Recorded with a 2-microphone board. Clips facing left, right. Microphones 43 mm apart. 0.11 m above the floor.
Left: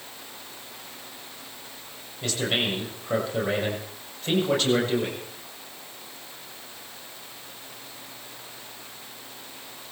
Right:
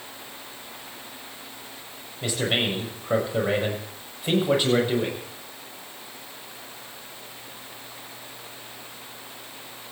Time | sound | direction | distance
2.2 | a man speaking | 15° right (ahead or behind) | 6.5 m